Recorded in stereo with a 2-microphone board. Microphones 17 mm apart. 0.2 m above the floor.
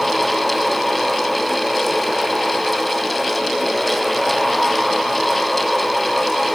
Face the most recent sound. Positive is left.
No sound to turn to.